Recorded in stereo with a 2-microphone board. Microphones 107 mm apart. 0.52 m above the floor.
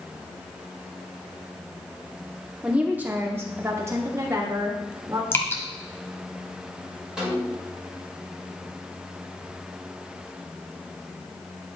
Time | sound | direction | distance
2.6 | a woman speaking | 10° right (ahead or behind) | 1.1 m
5.3 | dripping | 25° left (ahead or behind) | 1.1 m
7.2 | a snare drum | 5° right (ahead or behind) | 2.5 m